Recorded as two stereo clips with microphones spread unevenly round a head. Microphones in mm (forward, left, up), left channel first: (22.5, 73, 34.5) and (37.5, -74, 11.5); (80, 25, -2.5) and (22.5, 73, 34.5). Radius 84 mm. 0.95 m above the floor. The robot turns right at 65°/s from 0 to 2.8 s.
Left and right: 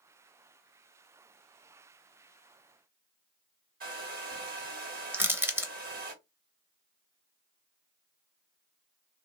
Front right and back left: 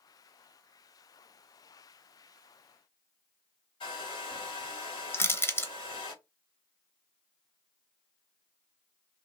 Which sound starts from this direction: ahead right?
A hair dryer, at 3.8 s.